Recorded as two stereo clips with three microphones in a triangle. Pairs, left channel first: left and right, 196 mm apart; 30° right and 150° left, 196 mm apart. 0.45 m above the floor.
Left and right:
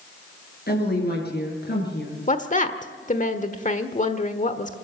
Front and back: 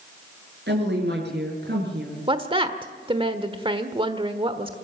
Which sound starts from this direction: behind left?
A woman speaking, at 0.7 s.